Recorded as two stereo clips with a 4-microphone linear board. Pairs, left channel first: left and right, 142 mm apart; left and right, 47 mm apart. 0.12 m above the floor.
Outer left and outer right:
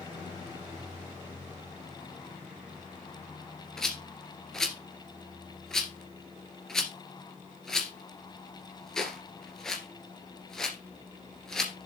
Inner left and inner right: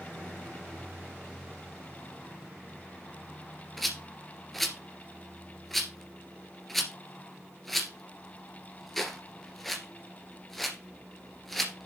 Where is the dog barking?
I don't hear a dog barking.